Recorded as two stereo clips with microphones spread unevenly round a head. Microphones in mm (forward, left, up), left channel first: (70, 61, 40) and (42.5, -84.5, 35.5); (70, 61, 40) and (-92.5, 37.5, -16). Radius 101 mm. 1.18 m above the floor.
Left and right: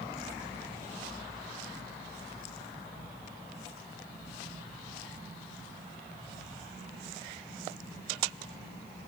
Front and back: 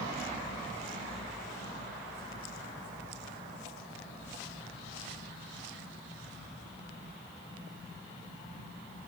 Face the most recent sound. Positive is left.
No sound to turn to.